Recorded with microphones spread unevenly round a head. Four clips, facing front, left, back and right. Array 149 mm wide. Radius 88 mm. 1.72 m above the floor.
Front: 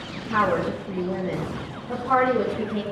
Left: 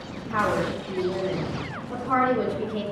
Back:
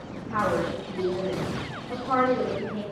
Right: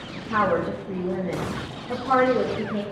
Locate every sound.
0.3 s a woman speaking: 45° right, 2.5 m